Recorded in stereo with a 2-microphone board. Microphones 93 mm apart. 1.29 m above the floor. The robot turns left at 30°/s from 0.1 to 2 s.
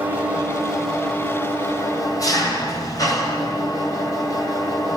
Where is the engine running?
160° right, 6 m; by 5.0 s 140° left, 6 m.